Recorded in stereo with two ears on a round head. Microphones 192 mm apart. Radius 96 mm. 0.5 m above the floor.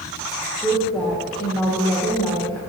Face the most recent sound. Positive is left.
turn(degrees=5)  # may be behind; listen again after turning